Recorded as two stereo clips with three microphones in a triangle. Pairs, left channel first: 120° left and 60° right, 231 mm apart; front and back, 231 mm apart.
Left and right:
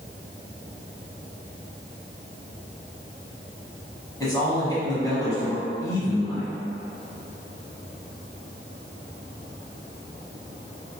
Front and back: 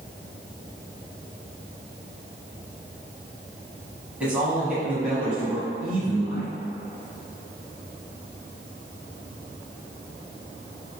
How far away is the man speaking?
About 1.1 m.